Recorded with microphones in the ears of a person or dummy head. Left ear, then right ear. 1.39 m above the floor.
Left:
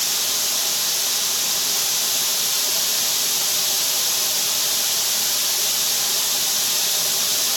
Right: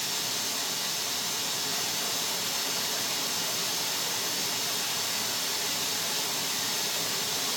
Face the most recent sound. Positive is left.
turn(degrees=85)